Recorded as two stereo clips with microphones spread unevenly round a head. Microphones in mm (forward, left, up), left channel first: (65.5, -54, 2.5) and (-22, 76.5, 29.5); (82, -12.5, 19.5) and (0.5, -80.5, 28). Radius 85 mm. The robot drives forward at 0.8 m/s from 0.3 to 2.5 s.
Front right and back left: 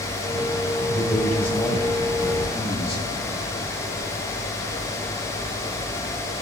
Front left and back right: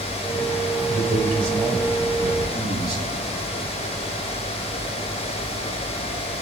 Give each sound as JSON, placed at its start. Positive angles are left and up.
{"t": 0.9, "sound": "a man speaking", "azimuth_deg": -135, "distance_m": 3.5}